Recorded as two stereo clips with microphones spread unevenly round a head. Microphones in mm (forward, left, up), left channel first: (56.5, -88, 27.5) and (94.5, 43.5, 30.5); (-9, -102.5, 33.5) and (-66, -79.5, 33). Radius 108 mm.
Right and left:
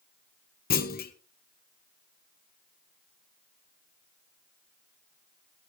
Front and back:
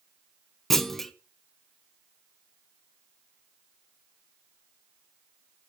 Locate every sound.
0.7 s a clunk: 105° right, 1.6 m